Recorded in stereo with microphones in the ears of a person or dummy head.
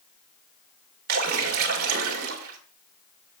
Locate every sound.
1.1 s a splash: 55° right (ahead or behind), 1.5 m